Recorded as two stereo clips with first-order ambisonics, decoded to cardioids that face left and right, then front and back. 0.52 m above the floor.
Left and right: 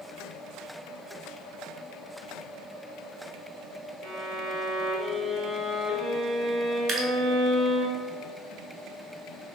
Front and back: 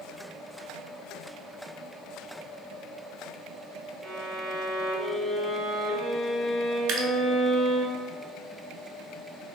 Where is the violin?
115° right, 1.4 m.